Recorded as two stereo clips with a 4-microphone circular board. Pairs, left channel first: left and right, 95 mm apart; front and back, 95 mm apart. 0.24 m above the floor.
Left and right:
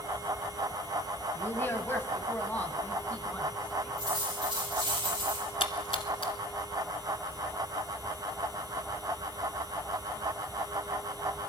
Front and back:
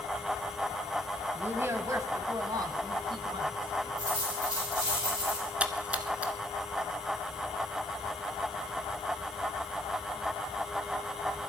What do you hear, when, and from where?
1.4 s a woman speaking: 130° left, 1.1 m; by 4.0 s 165° left, 2 m
4.0 s a dropped coin: 135° right, 9.5 m
5.6 s a splash: 105° left, 0.9 m